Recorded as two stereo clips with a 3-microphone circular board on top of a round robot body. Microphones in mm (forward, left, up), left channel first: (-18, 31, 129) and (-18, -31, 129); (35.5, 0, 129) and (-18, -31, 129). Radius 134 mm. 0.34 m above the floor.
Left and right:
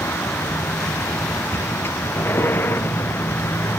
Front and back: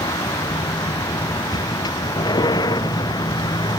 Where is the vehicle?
30° left; by 3.8 s 35° left.